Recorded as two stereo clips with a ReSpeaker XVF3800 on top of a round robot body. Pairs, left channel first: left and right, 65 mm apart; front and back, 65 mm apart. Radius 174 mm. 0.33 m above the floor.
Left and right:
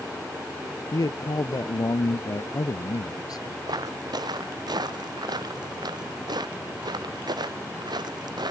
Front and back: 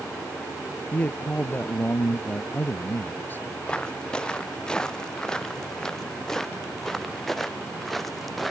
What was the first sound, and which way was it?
A man speaking, 65° left.